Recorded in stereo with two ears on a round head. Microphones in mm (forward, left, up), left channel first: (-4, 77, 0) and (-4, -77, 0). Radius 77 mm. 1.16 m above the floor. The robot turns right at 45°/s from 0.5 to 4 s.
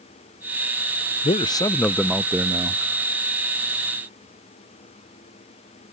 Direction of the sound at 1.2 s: 140° left.